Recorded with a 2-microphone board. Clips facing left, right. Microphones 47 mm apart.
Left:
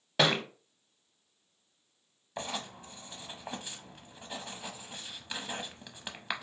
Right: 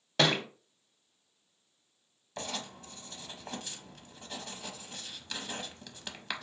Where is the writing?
15° left (ahead or behind), 0.5 m.